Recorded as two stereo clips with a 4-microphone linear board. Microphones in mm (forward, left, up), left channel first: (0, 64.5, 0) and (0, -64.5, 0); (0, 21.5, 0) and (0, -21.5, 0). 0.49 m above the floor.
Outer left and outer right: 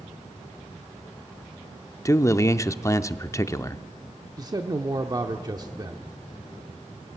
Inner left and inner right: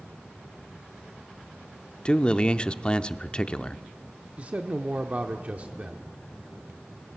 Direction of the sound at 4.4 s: 30° right (ahead or behind).